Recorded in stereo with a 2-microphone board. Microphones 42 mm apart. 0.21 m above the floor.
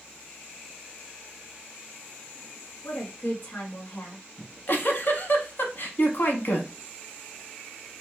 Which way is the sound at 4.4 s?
50° left (ahead or behind).